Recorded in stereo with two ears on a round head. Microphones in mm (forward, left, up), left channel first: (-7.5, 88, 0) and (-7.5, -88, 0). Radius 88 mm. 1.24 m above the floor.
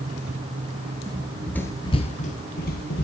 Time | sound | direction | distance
1.1 | running footsteps | 20° right (ahead or behind) | 1.2 m